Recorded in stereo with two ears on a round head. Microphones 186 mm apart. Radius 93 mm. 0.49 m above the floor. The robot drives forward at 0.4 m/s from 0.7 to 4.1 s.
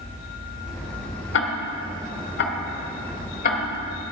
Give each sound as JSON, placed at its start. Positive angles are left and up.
{"t": 1.3, "sound": "ticking", "side_deg": 60, "distance_m": 1.2}